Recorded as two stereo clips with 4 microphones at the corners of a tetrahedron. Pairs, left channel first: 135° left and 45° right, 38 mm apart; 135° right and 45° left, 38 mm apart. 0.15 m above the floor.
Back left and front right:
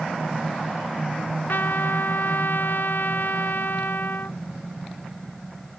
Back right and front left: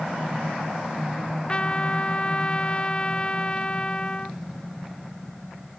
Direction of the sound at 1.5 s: 165° left.